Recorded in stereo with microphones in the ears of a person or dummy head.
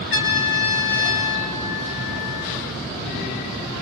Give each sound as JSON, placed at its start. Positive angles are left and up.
{"t": 0.1, "sound": "a trumpet", "side_deg": 70, "distance_m": 3.5}